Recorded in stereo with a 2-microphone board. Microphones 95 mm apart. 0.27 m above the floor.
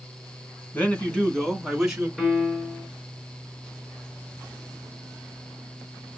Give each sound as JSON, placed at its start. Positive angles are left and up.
{"t": 0.7, "sound": "a man speaking", "side_deg": 20, "distance_m": 2.5}
{"t": 2.2, "sound": "a piano", "side_deg": 5, "distance_m": 3.5}